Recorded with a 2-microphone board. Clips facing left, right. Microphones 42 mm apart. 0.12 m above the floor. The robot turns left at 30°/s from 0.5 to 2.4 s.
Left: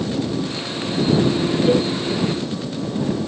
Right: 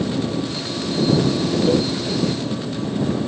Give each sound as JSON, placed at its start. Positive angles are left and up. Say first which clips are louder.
{"t": 1.7, "sound": "a cowbell", "louder": "left 2 dB", "side_deg": 20}